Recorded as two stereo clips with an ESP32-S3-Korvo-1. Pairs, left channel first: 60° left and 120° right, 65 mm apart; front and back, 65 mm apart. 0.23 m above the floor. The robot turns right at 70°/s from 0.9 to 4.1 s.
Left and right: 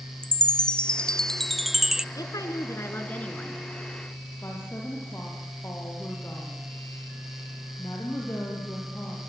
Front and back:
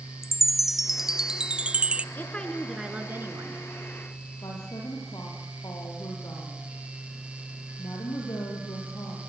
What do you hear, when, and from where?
0.2 s a chime: 105° left, 0.6 m; by 2.0 s 175° right, 0.6 m
2.1 s a woman speaking: 55° left, 3.5 m; by 3.6 s 160° left, 3.5 m
4.4 s a woman speaking: 10° left, 6.5 m